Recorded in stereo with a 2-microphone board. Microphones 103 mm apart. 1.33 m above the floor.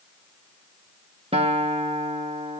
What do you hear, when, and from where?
1.3 s a guitar: 70° right (ahead or behind), 1.3 m